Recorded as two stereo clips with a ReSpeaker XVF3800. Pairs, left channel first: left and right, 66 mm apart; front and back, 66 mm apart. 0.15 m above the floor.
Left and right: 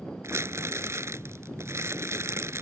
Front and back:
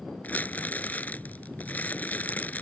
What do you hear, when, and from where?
0.2 s crumpling: 60° right